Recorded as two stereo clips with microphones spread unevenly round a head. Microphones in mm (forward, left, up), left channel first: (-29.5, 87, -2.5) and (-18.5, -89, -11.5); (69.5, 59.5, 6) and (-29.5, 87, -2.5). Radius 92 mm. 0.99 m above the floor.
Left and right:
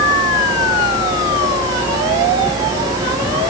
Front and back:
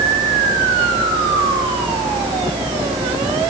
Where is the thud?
I don't hear a thud.